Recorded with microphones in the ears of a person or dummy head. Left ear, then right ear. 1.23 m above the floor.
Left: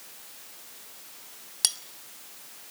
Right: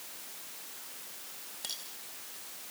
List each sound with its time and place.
1.6 s cutlery clinking: 50° left (ahead or behind), 0.9 m